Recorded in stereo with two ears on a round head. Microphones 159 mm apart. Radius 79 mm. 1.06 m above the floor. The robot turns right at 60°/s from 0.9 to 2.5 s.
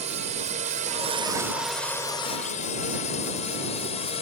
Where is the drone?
40° right (ahead or behind); by 4.2 s 35° left (ahead or behind).